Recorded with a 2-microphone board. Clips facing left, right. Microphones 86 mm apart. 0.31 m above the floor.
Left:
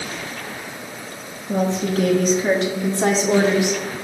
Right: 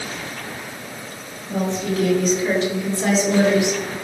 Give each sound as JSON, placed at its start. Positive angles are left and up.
{"t": 1.5, "sound": "a woman speaking", "side_deg": 60, "distance_m": 3.5}